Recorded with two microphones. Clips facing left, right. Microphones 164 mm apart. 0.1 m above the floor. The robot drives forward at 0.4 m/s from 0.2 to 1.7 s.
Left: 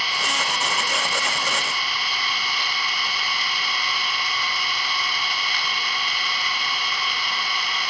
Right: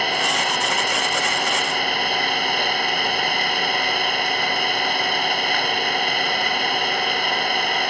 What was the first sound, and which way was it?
An engine running, 60° right (ahead or behind).